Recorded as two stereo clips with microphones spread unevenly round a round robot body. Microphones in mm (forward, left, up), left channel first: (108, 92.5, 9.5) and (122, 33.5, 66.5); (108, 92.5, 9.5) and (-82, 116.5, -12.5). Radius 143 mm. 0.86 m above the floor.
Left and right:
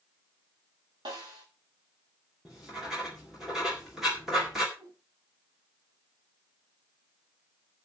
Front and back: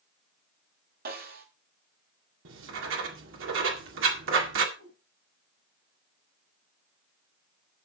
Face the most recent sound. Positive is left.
turn(degrees=-150)